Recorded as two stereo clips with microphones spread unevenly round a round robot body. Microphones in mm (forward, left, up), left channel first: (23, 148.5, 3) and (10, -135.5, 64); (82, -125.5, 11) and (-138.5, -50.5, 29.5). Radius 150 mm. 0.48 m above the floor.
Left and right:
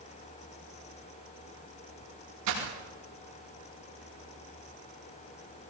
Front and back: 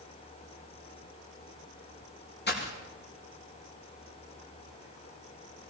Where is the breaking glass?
65° right, 9.5 m.